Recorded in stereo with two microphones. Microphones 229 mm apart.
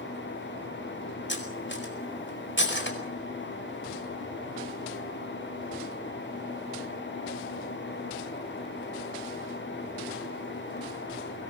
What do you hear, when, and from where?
1.3 s cutlery clinking: 55° left (ahead or behind), 4.5 m